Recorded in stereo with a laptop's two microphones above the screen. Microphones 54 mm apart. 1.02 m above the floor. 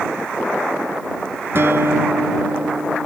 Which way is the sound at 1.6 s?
50° right (ahead or behind).